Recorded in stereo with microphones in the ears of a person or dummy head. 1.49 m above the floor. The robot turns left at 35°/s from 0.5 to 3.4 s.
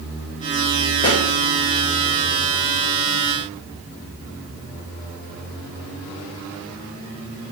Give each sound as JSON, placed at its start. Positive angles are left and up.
{"t": 1.0, "sound": "a pop", "side_deg": 30, "distance_m": 1.1}